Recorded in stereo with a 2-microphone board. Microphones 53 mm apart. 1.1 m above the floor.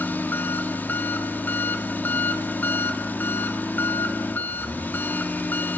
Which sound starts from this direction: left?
An engine running, at 0.0 s.